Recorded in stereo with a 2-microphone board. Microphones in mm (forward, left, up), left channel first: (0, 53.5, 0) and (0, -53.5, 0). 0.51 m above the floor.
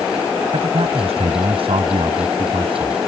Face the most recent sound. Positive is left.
turn(degrees=-55)  # may be behind; listen again after turning